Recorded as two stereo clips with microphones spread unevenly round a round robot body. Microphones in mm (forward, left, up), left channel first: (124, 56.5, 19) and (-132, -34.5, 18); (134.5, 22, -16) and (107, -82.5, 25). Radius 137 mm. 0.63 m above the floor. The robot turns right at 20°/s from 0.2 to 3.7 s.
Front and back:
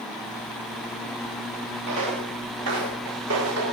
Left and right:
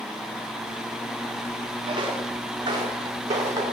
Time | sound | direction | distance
1.9 | footsteps | 170° right | 4.5 m